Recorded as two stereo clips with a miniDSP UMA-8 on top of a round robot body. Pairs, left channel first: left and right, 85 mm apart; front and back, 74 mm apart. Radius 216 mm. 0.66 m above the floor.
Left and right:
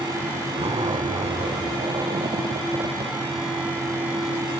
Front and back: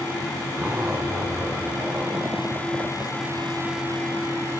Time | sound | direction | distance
0.6 | a zipper | 115° right | 0.6 m